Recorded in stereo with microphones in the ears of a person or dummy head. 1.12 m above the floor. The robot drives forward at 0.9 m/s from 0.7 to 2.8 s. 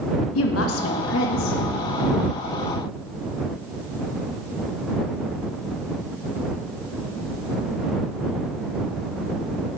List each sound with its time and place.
0.3 s a woman speaking: 75° left (ahead or behind), 1.2 m; by 1.6 s 50° left (ahead or behind), 1.5 m